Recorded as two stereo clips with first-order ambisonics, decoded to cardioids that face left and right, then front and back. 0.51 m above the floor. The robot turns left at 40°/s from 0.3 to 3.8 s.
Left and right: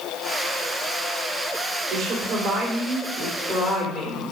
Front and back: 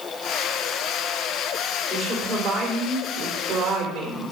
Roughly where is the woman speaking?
Right.